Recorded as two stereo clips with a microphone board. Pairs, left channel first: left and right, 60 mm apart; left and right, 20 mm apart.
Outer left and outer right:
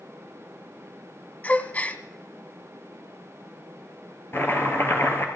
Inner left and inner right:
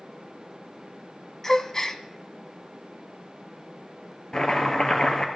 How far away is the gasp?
About 0.8 m.